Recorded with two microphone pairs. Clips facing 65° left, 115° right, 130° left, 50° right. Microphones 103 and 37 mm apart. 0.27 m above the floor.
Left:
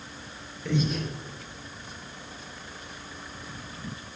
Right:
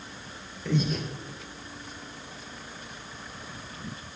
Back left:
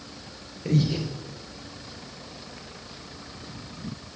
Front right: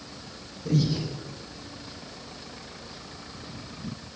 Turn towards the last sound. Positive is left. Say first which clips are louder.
# even, back left 1 dB
turn(degrees=160)